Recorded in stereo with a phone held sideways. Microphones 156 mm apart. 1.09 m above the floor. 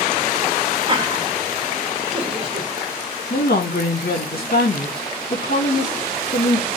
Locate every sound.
0.9 s laughter: 30° right (ahead or behind), 1.4 m
3.3 s a woman speaking: 75° left (ahead or behind), 1.8 m